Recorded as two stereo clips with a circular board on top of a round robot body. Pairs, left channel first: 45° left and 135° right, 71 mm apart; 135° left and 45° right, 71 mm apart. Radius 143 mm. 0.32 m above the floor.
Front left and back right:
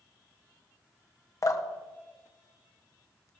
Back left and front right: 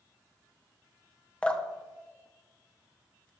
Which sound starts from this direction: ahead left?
Dripping, at 1.4 s.